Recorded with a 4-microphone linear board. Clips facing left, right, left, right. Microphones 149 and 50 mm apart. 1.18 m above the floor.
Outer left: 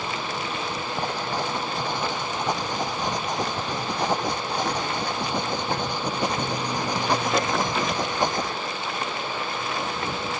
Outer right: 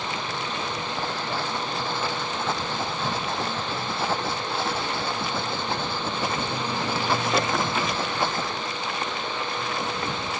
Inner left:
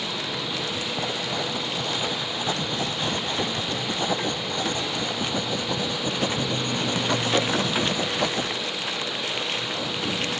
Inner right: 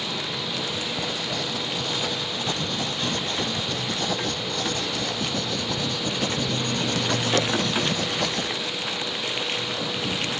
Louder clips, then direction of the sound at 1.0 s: Outer left 3 dB, inner left 1 dB; 15° left (ahead or behind).